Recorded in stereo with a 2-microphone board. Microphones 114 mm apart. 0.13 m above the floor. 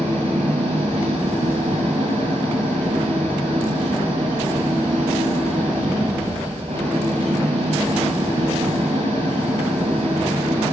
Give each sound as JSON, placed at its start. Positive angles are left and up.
{"t": 0.0, "sound": "an engine running", "side_deg": -70, "distance_m": 10.0}